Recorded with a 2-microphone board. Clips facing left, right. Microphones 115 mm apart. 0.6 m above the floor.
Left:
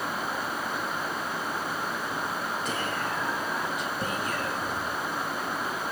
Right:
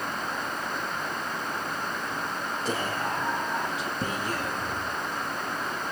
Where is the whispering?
35° right (ahead or behind), 1.0 m.